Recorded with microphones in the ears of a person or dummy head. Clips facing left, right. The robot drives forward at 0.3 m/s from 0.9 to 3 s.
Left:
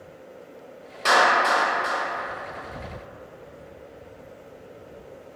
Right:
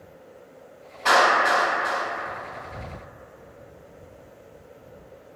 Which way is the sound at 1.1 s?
65° left (ahead or behind).